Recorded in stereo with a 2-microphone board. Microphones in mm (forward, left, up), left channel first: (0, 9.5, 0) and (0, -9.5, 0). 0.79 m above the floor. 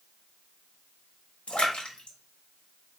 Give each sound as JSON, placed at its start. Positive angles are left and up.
{"t": 1.5, "sound": "a splash", "side_deg": 80, "distance_m": 1.0}